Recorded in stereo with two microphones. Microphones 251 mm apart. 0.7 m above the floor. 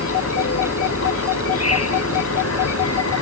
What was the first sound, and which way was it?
An insect, 75° left (ahead or behind).